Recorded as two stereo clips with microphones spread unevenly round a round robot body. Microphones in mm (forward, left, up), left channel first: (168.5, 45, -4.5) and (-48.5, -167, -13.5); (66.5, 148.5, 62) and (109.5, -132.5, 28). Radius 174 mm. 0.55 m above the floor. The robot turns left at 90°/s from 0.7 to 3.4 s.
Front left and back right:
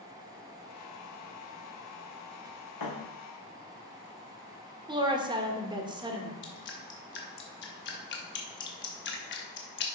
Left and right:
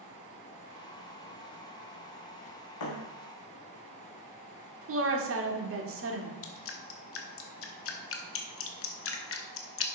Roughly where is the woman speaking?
Ahead right.